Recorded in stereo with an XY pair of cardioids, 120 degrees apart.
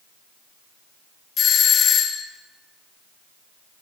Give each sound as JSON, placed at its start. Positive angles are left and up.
{"t": 1.4, "sound": "a doorbell", "azimuth_deg": 50, "distance_m": 3.0}